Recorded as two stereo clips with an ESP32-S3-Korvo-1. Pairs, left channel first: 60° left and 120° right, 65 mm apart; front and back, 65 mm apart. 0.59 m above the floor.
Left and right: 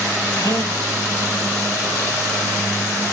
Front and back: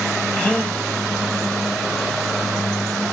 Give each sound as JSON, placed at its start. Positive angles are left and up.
{"t": 0.4, "sound": "a gasp", "azimuth_deg": 75, "distance_m": 1.9}